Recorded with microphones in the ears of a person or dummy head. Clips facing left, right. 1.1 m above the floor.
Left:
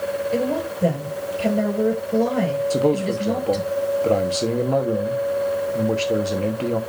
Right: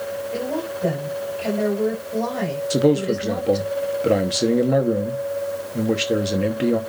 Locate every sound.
0.3 s a woman speaking: 40° left (ahead or behind), 6.5 m
2.7 s a man speaking: 15° right (ahead or behind), 1.0 m